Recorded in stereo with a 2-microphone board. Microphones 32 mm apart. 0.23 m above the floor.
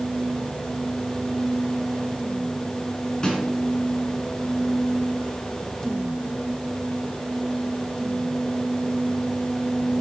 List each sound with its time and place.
3.2 s a snare drum: 25° left (ahead or behind), 2.5 m